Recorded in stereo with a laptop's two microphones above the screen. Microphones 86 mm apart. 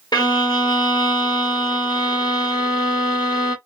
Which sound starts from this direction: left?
A violin, at 0.1 s.